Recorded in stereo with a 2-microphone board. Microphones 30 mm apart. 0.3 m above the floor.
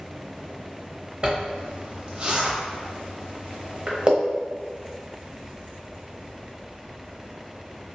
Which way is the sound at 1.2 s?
35° right (ahead or behind).